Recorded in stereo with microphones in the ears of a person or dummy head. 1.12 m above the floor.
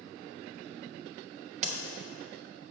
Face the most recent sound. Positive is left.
turn(degrees=-40)  # may be behind; listen again after turning